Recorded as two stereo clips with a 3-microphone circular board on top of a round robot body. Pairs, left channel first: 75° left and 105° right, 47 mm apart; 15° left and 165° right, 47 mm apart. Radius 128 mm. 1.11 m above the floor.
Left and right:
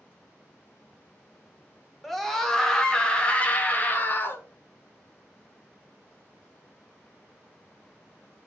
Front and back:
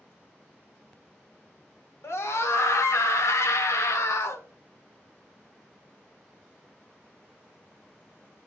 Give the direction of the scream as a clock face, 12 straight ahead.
12 o'clock.